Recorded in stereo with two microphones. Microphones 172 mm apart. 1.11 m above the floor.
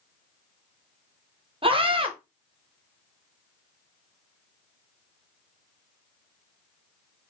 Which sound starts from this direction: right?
A scream, at 1.6 s.